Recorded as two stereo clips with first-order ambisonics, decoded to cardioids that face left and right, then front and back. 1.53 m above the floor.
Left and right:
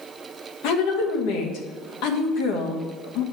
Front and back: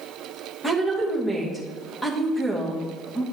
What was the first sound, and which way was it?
A woman speaking, 80° left.